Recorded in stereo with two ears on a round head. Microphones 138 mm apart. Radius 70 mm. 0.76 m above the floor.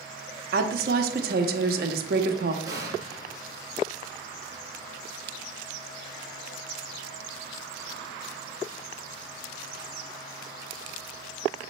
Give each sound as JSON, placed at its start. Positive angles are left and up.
{"t": 0.5, "sound": "a woman speaking", "side_deg": -60, "distance_m": 0.9}
{"t": 2.6, "sound": "an explosion", "side_deg": -20, "distance_m": 1.8}